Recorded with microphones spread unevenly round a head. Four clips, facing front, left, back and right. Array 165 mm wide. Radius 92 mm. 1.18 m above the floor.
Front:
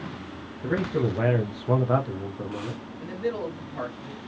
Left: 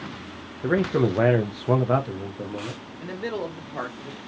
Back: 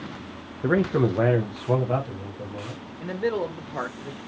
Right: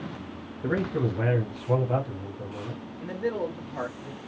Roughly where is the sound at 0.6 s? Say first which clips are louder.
Left 5 dB, back 4 dB; behind left.